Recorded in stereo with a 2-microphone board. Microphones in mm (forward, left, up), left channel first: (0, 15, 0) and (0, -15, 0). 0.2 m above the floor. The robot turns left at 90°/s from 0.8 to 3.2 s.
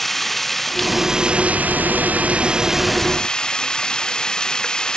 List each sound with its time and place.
0.0 s running water: 10° left; by 5.0 s 150° left